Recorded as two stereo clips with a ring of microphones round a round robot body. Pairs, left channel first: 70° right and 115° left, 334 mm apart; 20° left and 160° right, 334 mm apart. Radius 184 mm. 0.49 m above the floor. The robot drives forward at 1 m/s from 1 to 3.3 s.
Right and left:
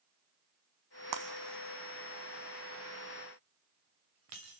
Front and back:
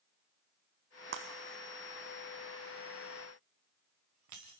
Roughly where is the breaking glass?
Behind left.